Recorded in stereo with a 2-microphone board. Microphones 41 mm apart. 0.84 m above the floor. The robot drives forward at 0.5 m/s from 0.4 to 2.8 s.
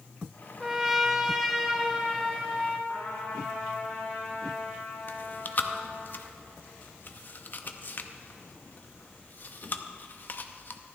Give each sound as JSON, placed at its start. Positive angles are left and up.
{"t": 0.6, "sound": "a trumpet", "side_deg": -10, "distance_m": 0.6}
{"t": 2.9, "sound": "a trumpet", "side_deg": 45, "distance_m": 4.0}
{"t": 5.1, "sound": "chewing", "side_deg": 45, "distance_m": 0.6}